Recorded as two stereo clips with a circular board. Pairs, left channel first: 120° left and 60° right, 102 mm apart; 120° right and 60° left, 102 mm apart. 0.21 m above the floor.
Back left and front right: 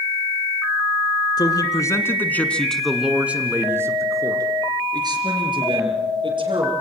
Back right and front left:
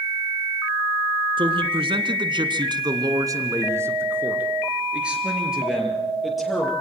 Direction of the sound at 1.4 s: 80° left.